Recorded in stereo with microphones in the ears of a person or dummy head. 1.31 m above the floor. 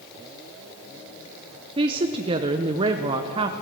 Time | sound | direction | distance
1.8 | a woman speaking | 25° right (ahead or behind) | 0.7 m